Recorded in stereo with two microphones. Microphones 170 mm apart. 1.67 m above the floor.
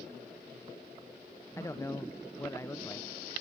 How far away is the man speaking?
About 0.6 m.